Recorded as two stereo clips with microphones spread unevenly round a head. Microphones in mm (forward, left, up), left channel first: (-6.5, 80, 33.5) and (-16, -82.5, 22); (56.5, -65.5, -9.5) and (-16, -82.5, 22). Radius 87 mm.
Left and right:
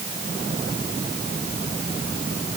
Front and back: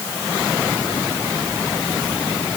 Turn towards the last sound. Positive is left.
No sound to turn to.